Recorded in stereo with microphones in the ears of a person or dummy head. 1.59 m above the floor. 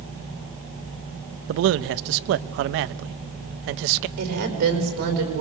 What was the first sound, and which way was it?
A man speaking, 55° right (ahead or behind).